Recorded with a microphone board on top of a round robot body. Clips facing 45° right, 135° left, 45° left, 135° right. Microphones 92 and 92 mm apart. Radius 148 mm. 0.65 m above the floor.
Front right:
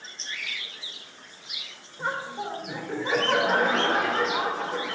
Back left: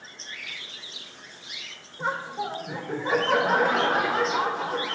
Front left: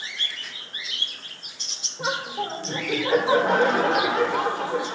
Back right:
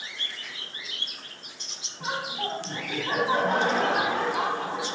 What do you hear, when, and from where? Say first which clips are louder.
2.0 s laughter: back left 1 dB, front left 4 dB; 50° left, 2.5 m